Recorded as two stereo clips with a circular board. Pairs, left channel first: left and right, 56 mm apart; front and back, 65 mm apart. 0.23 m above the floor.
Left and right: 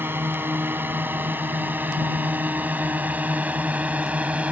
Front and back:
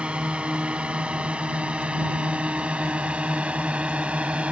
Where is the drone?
115° right; by 4.5 s 130° right.